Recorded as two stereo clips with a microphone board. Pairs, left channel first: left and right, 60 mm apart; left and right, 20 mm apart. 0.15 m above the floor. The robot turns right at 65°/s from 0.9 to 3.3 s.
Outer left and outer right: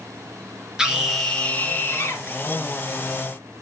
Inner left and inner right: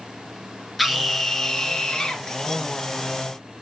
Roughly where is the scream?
Ahead.